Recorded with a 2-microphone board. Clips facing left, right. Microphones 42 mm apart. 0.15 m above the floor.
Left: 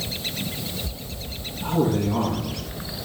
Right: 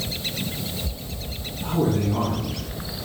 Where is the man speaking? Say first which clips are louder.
Left 1 dB; 35° left (ahead or behind), 4 m.